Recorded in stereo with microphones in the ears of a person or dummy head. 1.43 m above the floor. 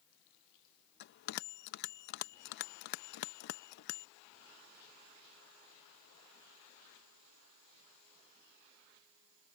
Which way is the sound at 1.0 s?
65° left (ahead or behind).